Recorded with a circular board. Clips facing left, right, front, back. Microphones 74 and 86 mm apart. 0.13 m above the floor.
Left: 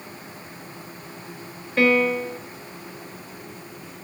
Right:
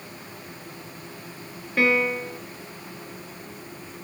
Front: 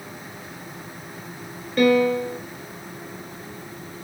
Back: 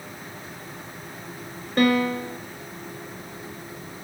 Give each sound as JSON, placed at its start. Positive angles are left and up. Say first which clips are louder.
{"t": 1.8, "sound": "a piano", "louder": "left 3 dB, front 3 dB", "azimuth_deg": -175, "distance_m": 1.2}